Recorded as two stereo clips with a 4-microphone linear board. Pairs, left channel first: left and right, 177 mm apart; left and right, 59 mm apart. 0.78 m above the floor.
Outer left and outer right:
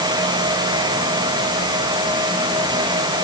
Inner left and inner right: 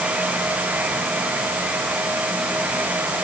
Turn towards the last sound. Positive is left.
No sound to turn to.